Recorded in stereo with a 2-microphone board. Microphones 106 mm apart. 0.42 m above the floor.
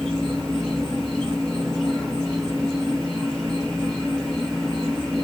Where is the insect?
10° left (ahead or behind), 2.5 m.